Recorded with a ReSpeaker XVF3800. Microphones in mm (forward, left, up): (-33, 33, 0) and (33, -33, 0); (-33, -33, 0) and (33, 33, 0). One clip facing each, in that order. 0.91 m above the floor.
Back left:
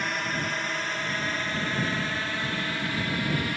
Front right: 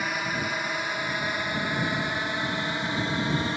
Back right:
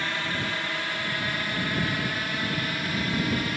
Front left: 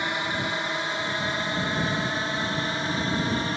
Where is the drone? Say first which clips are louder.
Front right 1 dB, front left 2 dB; 25° left; by 3.6 s 5° left.